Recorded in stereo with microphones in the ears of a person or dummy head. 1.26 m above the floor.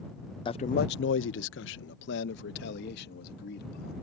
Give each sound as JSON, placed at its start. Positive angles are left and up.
{"t": 0.5, "sound": "a man speaking", "side_deg": 25}